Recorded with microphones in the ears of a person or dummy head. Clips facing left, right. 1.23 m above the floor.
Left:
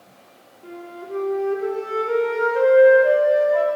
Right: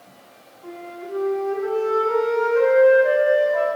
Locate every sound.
0.6 s a flute: 35° left (ahead or behind), 0.9 m